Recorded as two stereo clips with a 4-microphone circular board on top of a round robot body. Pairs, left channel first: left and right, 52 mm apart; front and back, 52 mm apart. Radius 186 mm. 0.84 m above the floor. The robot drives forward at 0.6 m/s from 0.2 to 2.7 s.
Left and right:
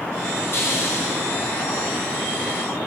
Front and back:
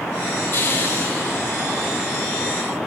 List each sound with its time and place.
0.5 s a hiss: 45° left, 5.5 m; by 1.2 s 50° left, 5 m